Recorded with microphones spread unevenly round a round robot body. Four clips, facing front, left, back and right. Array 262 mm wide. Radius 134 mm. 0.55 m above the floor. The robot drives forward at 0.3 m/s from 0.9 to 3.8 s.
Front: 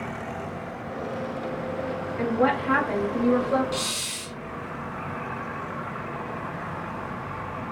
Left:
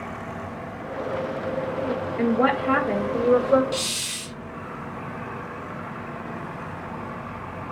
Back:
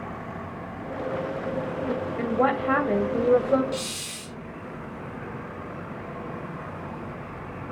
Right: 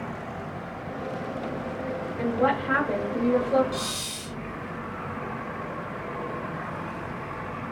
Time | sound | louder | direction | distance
2.2 | a woman speaking | left 3 dB, front 1 dB | 100° left | 2.5 m
3.7 | a hiss | left 2 dB, front 1 dB | 85° left | 0.6 m